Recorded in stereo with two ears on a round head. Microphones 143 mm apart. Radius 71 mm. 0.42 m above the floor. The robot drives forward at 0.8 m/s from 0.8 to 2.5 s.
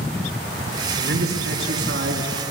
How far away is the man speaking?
About 5.5 m.